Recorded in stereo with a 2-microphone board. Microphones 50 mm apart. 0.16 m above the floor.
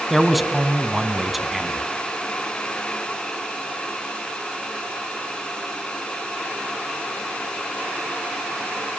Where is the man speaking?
Centre (ahead or behind), 1.3 m.